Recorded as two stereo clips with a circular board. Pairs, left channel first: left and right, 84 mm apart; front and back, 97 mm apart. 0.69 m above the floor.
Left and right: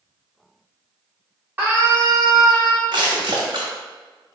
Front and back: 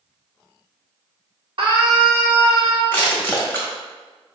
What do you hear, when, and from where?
1.6 s a scream: 155° right, 1.7 m; by 2.8 s 95° right, 2 m
2.9 s crushing: 70° right, 1.8 m